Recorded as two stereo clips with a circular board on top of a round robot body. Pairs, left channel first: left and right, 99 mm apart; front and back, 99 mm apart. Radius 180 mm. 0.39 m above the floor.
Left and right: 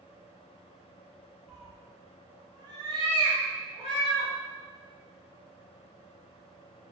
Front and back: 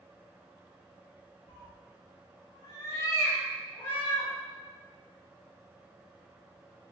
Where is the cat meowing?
Straight ahead, 0.8 m; by 4.3 s 80° right, 1.5 m.